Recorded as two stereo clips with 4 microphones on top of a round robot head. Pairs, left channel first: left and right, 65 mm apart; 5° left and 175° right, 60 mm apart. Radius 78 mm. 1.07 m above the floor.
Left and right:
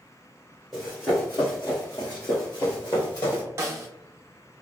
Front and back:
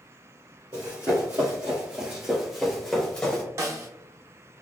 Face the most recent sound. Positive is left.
turn(degrees=-135)